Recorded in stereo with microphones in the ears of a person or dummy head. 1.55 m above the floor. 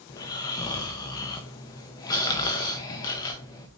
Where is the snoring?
20° left (ahead or behind), 0.9 m.